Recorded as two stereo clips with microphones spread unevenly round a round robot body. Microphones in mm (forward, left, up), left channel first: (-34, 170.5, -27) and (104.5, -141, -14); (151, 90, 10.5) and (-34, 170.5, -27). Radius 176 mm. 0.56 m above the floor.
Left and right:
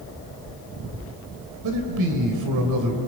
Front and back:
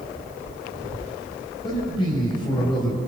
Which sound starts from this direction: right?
A man speaking, at 1.6 s.